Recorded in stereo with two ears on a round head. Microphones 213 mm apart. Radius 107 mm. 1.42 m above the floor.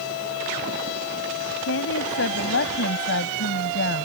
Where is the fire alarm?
No fire alarm in this recording.